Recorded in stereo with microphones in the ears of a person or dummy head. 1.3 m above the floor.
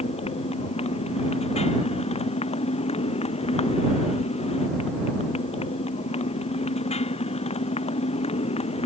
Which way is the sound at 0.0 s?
30° left (ahead or behind).